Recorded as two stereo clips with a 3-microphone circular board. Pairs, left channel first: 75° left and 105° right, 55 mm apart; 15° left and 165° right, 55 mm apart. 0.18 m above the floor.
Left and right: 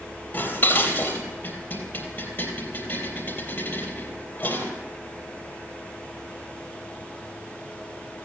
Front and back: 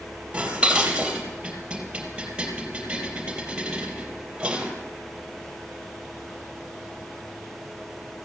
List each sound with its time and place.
0.3 s dishes clattering: 125° left, 3 m